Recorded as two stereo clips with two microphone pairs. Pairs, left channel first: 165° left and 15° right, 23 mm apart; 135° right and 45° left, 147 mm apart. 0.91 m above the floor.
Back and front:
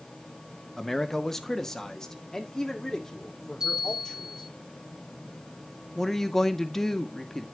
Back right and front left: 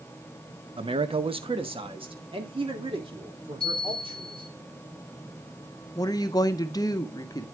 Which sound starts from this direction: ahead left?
A bell, at 3.6 s.